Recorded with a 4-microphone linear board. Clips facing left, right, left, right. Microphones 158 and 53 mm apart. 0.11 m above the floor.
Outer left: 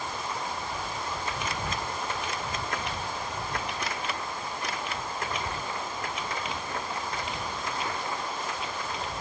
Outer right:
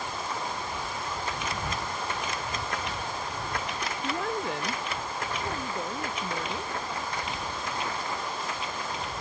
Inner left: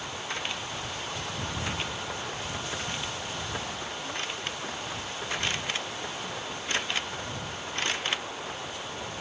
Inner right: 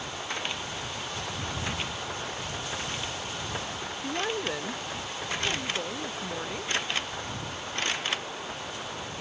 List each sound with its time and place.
4.0 s a woman speaking: 80° right; by 6.7 s 85° right